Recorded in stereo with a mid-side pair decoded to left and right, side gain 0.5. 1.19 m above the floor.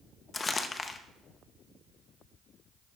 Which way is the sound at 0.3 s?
30° left.